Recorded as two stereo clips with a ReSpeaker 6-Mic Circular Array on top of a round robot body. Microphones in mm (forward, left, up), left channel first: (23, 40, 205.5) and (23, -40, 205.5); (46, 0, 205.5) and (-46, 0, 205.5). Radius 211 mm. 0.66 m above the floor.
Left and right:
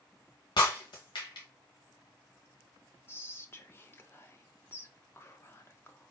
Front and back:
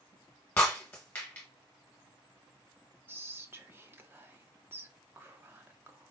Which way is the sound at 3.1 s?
130° left.